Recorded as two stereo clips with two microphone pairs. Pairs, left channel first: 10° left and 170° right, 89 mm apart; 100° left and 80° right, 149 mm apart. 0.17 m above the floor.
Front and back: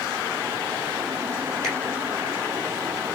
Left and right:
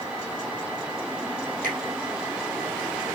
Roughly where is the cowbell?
I don't hear a cowbell.